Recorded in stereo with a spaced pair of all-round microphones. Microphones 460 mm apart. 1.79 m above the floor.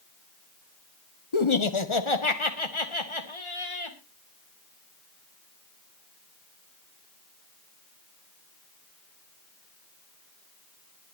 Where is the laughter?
75° left (ahead or behind), 1.3 m; by 4.0 s 80° left, 3 m.